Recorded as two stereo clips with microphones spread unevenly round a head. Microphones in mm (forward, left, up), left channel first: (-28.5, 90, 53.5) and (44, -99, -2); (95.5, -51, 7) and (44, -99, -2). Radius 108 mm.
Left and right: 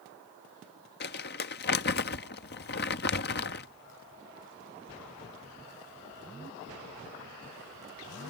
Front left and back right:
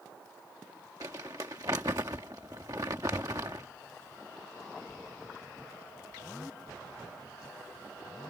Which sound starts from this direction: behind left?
Crumpling, at 1.0 s.